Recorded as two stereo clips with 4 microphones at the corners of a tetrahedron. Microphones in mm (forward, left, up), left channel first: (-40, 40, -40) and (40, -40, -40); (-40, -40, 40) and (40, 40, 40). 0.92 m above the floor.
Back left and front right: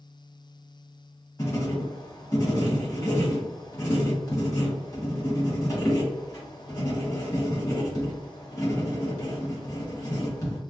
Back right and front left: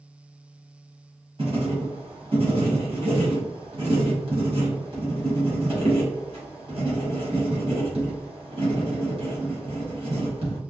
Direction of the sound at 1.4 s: 75° left.